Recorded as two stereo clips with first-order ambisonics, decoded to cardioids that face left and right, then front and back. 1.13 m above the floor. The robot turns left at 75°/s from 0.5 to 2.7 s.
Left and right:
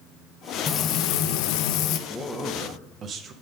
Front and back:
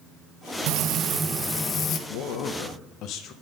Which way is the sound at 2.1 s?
10° left.